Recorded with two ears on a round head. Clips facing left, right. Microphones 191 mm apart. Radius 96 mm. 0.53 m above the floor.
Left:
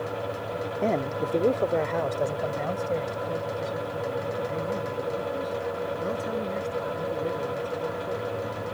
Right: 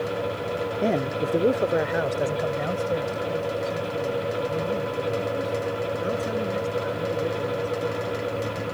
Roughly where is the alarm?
No alarm in this recording.